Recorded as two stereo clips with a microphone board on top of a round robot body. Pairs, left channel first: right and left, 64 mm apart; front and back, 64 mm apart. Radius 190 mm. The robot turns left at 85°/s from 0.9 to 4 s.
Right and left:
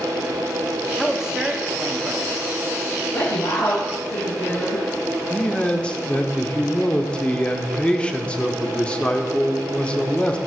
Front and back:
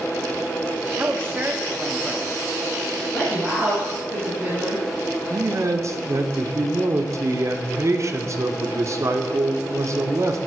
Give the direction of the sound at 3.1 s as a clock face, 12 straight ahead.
2 o'clock.